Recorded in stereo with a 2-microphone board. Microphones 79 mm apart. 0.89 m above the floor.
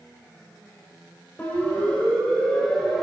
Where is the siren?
20° left (ahead or behind), 5.5 m; by 3.0 s 5° left (ahead or behind), 6 m.